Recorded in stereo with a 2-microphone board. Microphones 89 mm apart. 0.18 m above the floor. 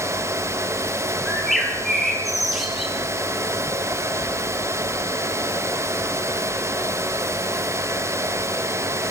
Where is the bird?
Centre (ahead or behind), 4 m.